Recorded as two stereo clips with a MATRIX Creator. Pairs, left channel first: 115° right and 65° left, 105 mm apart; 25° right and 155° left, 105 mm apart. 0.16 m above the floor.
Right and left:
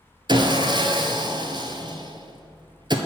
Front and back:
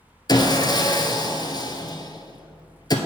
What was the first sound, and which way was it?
Sawing, 25° left.